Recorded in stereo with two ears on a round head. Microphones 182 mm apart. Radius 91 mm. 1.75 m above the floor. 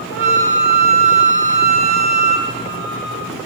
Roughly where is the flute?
Right.